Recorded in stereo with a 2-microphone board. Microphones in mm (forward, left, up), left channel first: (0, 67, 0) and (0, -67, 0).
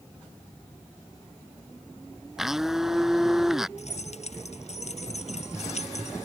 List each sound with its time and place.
2.4 s a blender: 5° right (ahead or behind)
3.8 s keys jangling: 60° left (ahead or behind)